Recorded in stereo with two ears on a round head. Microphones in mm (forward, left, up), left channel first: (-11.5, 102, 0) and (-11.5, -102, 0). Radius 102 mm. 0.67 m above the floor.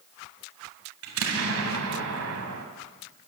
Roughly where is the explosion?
Right.